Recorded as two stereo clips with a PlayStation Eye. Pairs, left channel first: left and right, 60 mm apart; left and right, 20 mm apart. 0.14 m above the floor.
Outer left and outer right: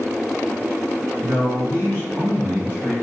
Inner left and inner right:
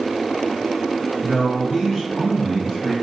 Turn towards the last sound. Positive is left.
turn(degrees=-25)  # may be behind; listen again after turning